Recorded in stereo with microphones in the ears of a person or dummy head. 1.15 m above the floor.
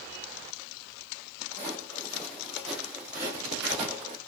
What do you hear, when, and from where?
1.5 s footsteps: 15° left (ahead or behind), 1.8 m; by 4.2 s 35° right (ahead or behind), 1.6 m